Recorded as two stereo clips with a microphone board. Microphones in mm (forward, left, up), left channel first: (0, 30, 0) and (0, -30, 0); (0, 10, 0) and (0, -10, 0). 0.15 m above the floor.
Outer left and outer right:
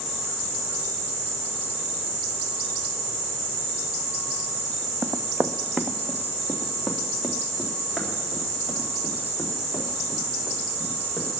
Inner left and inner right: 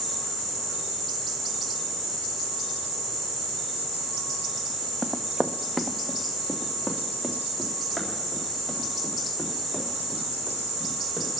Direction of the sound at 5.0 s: 55° right (ahead or behind).